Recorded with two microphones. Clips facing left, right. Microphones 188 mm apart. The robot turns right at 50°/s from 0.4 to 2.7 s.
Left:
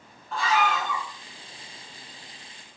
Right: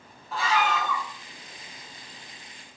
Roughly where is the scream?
Ahead.